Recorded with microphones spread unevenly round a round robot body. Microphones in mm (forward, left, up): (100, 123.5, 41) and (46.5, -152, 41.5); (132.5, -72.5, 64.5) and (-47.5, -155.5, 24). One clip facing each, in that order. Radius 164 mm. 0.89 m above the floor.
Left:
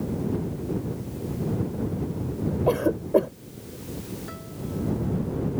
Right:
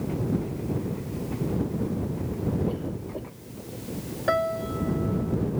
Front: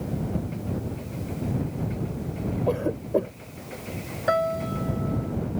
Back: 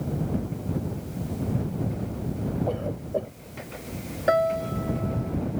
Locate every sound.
2.7 s a cough: 80° left
4.3 s a piano: 95° right